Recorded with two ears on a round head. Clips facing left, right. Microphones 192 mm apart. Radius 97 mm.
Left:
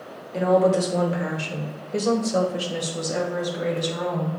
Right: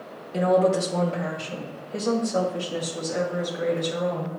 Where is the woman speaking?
15° right (ahead or behind), 0.9 m; by 4.4 s 55° left (ahead or behind), 2.5 m.